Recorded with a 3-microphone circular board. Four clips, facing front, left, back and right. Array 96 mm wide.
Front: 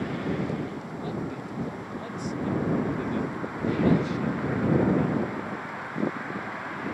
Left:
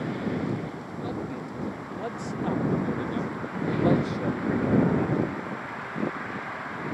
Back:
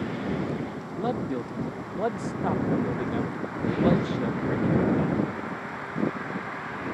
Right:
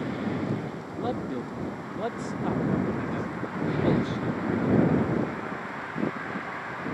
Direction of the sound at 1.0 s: 155° right.